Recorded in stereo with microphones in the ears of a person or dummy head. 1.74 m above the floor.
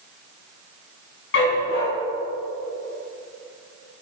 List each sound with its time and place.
1.3 s a dog barking: 65° left (ahead or behind), 5.5 m